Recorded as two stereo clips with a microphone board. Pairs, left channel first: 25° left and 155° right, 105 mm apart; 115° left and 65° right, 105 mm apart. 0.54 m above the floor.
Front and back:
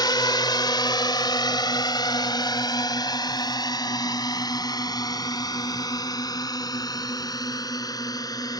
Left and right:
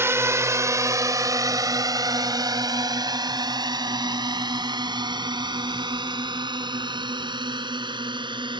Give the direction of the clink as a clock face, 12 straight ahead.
I don't hear a clink.